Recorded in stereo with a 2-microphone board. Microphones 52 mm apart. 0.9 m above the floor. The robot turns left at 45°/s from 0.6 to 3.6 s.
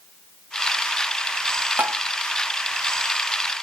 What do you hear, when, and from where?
1.8 s tapping: 40° right (ahead or behind), 0.7 m; by 2.0 s 30° right (ahead or behind), 0.7 m